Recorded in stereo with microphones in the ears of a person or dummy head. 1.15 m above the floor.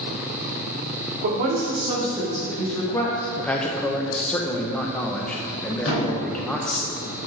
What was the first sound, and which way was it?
A woman speaking, 50° right (ahead or behind).